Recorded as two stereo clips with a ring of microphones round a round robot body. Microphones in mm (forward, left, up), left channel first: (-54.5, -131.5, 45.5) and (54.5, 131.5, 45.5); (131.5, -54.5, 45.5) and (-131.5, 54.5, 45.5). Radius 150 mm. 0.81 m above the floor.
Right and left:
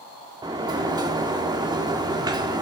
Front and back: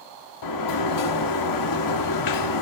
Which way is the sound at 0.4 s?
10° right.